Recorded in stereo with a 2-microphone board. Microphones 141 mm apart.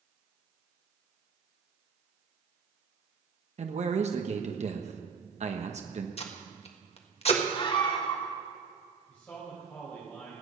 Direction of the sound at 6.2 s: 45° left (ahead or behind).